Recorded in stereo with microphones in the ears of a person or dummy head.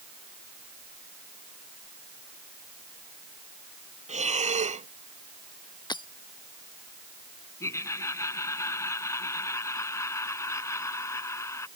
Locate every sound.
4.1 s breathing: 30° right (ahead or behind)
5.9 s breaking glass: 25° left (ahead or behind)
7.6 s laughter: 20° left (ahead or behind)